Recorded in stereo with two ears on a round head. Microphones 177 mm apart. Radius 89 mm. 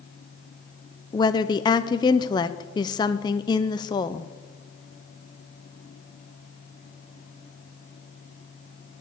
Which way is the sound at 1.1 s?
20° left (ahead or behind).